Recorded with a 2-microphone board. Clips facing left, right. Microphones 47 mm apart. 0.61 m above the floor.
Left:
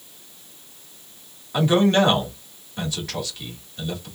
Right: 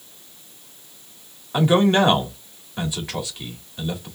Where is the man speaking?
15° right (ahead or behind), 1.4 m.